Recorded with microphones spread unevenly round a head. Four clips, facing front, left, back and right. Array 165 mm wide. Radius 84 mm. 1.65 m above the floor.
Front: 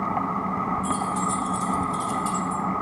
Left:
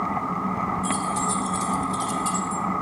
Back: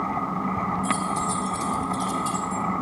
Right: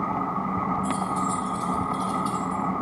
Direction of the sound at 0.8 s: 80° left.